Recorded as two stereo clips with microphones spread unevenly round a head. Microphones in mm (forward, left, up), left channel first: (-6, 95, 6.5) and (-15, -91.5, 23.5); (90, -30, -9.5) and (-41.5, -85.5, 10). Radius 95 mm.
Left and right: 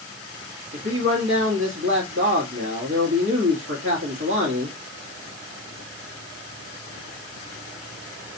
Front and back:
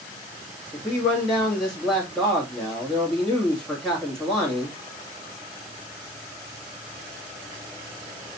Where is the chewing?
I don't hear chewing.